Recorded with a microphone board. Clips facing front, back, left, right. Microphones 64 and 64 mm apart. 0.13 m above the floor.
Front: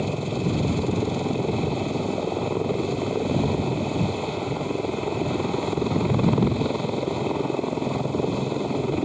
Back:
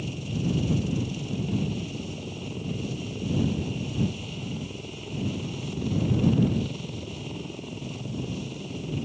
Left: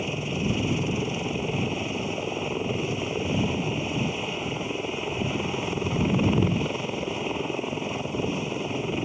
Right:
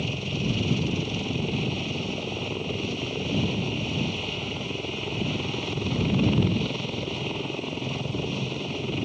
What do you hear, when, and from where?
0.0 s a helicopter: 20° left